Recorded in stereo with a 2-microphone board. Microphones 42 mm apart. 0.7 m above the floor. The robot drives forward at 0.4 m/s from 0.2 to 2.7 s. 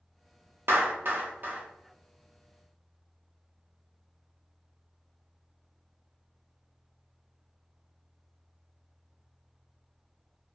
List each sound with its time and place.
0.7 s a clap: 65° right (ahead or behind), 0.5 m; by 1.6 s 45° right (ahead or behind), 0.7 m